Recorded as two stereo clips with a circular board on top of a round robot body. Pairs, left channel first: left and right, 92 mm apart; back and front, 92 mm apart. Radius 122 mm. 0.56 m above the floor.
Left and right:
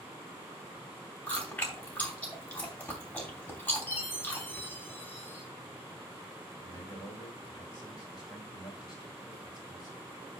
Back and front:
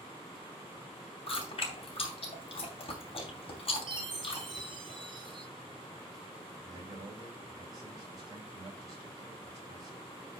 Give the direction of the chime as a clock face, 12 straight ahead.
11 o'clock.